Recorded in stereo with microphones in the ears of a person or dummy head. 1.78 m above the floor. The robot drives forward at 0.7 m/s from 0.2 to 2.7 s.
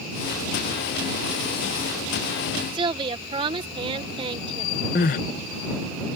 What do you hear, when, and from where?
2.7 s a woman speaking: 25° right (ahead or behind)
5.0 s crying: 45° left (ahead or behind)